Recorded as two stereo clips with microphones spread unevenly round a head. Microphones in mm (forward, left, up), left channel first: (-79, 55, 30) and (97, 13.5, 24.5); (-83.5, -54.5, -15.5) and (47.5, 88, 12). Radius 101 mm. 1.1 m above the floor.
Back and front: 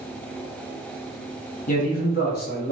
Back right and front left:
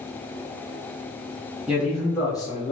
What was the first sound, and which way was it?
A man speaking, 135° left.